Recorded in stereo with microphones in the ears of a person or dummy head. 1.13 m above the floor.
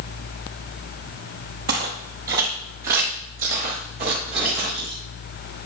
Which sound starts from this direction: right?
Footsteps, at 1.7 s.